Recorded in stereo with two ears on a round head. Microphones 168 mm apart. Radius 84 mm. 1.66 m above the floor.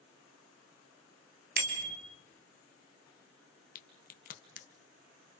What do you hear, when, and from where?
1.6 s a bicycle bell: 55° right (ahead or behind), 3.5 m
3.8 s a crack: 45° left (ahead or behind), 2.0 m